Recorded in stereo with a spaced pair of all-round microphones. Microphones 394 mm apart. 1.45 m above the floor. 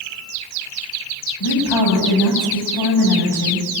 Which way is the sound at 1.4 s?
85° left.